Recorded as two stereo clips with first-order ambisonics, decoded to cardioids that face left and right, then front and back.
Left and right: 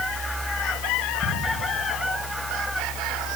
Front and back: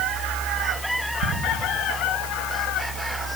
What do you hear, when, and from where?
1.2 s ticking: 165° left, 7.5 m